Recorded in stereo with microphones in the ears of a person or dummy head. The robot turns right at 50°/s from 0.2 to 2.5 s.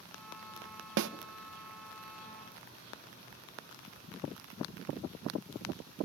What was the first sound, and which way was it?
A snare drum, 70° right (ahead or behind).